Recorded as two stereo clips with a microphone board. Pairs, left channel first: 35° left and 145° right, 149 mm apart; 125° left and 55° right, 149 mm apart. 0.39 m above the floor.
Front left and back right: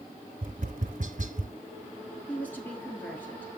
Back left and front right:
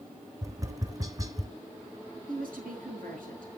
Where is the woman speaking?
45° right, 5.5 m.